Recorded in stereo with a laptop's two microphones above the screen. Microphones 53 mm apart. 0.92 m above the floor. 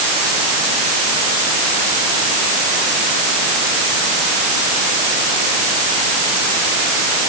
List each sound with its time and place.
Only background noise.